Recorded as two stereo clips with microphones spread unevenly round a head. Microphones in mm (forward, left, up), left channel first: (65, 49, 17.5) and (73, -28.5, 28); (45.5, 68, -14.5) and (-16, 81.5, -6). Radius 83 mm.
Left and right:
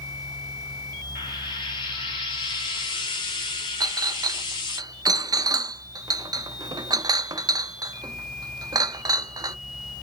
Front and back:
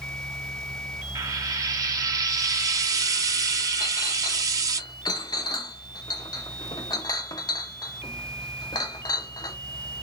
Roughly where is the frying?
Behind left.